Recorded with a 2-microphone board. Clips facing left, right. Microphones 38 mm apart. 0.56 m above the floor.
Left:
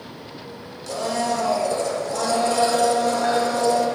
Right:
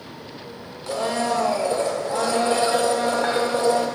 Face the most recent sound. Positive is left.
turn(degrees=-30)  # may be behind; listen again after turning